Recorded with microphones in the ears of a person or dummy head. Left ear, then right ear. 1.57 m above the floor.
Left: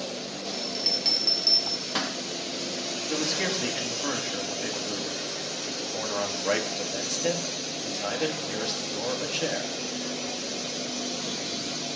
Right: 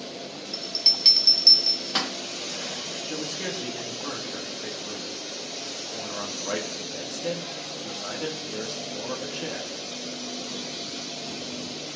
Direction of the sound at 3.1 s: 25° left (ahead or behind).